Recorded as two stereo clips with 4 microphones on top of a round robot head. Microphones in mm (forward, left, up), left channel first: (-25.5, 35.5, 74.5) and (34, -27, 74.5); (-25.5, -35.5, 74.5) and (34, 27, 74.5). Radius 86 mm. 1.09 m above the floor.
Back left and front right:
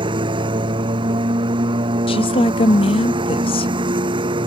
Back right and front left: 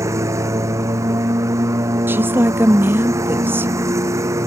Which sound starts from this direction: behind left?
A woman speaking, at 2.1 s.